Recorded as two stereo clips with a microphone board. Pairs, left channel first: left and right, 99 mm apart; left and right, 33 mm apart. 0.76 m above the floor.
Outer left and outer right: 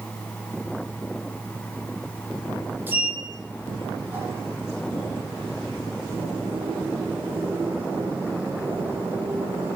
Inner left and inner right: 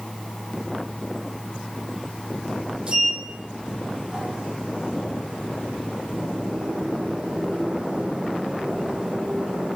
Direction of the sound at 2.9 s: 20° right (ahead or behind).